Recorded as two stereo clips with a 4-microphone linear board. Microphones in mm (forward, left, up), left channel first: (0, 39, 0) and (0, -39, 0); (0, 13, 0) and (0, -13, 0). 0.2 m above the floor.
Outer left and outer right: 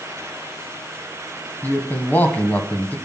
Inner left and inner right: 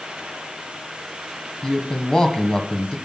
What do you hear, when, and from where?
1.6 s a man speaking: 25° left (ahead or behind), 1.4 m